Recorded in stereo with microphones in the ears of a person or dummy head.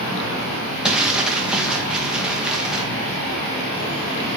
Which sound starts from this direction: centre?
Crumpling, at 0.8 s.